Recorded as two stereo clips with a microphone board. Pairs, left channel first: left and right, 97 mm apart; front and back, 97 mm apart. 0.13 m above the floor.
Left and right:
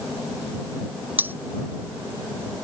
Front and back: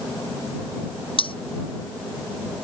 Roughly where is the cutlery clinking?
Ahead.